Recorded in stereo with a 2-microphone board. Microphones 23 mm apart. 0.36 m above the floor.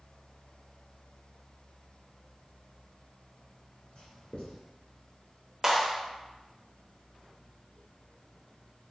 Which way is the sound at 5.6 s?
15° right (ahead or behind).